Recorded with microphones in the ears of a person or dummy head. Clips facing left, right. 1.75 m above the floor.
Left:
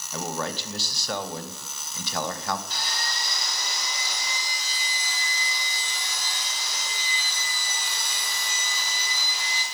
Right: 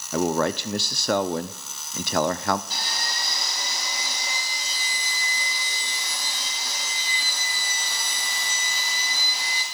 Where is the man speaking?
55° right (ahead or behind), 0.6 m.